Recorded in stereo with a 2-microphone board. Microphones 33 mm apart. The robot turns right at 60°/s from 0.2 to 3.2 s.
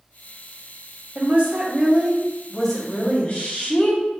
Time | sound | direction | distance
1.1 | a woman speaking | 75° right | 0.9 m